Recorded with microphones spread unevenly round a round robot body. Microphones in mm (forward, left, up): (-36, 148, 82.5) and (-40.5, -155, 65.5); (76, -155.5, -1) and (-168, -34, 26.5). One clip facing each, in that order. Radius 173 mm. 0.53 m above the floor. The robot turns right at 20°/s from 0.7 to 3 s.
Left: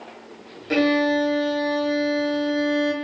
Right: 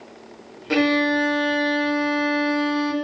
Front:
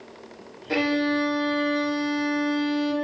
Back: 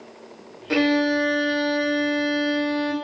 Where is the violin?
145° right, 0.6 m; by 2.9 s 100° right, 0.6 m.